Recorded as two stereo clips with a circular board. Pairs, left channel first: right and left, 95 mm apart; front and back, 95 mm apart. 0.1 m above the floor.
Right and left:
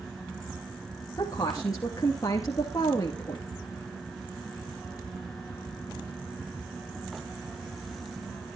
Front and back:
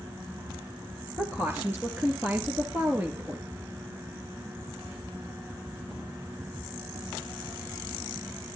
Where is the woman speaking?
120° right, 2.5 m.